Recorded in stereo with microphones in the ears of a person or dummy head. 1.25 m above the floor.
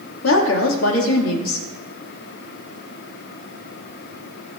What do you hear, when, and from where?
0.2 s a woman speaking: 85° left, 2 m